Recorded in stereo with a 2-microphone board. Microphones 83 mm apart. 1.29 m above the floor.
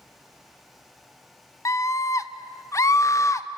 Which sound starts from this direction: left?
A scream, at 1.6 s.